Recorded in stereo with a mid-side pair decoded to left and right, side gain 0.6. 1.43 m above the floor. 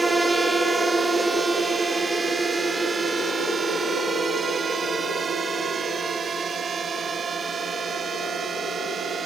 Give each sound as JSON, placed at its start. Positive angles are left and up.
{"t": 0.0, "sound": "a drone", "azimuth_deg": -15}